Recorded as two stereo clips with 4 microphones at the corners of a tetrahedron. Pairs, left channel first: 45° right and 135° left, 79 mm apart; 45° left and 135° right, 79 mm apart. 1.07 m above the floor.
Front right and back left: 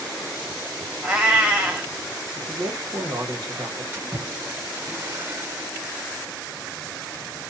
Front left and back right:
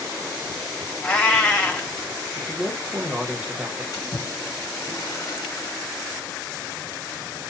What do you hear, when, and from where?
1.0 s a cat meowing: 85° left, 0.9 m
2.4 s a man speaking: 155° left, 1.0 m
3.9 s a splash: 75° left, 1.2 m